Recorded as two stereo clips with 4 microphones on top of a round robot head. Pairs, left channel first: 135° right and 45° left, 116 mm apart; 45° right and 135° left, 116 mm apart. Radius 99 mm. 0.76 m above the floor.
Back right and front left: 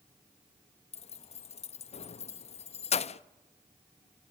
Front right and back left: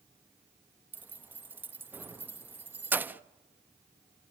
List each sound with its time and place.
0.9 s keys jangling: 150° right, 0.6 m